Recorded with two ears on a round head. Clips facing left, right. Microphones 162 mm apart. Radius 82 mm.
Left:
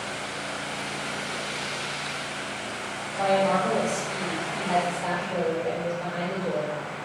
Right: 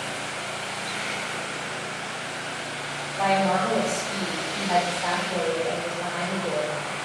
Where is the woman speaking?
5° right (ahead or behind), 1.8 m.